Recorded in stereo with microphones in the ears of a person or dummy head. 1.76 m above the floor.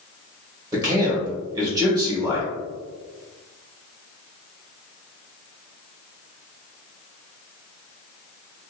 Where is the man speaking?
20° right (ahead or behind), 1.3 m.